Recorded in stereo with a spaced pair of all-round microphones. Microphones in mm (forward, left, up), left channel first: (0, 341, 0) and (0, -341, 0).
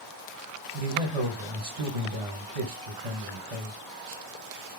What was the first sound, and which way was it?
A man speaking, 60° right (ahead or behind).